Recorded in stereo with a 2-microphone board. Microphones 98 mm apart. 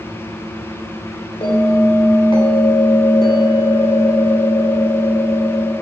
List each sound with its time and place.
1.4 s a bell: 55° left (ahead or behind), 3 m